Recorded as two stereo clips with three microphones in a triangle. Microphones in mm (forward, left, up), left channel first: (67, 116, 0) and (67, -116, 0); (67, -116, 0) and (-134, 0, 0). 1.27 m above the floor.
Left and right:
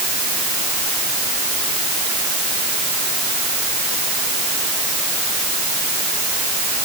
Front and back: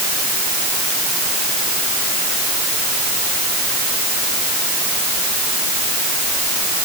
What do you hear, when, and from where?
Only background noise.